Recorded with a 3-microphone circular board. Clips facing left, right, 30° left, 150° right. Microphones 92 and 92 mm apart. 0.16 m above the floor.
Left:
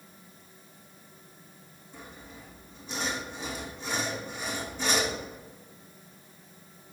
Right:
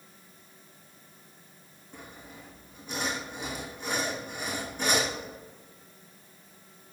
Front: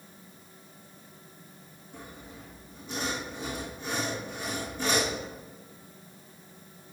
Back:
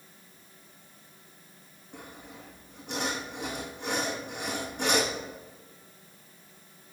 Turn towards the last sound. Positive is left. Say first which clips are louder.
# even, even
turn(degrees=-125)